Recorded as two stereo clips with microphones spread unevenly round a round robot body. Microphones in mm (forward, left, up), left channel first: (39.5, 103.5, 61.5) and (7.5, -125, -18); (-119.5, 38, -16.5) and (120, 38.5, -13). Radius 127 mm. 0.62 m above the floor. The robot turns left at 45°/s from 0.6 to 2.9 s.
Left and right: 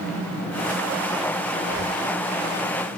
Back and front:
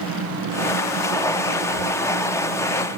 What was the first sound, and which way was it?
Breathing, 35° left.